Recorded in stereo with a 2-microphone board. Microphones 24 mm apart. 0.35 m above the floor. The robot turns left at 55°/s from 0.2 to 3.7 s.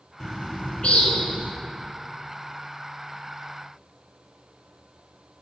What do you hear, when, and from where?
0.2 s a bird: 155° left, 1.2 m; by 1.5 s 85° left, 1.2 m